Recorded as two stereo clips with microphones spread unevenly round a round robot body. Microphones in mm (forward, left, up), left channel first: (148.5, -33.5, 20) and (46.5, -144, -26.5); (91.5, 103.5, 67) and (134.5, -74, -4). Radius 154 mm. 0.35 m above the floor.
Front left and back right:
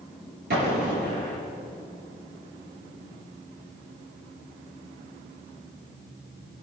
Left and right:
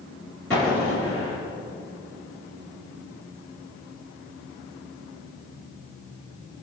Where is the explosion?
165° right, 4 m.